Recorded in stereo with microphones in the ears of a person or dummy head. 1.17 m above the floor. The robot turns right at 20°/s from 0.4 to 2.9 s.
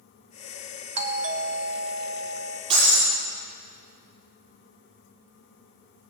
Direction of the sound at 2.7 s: 30° right (ahead or behind).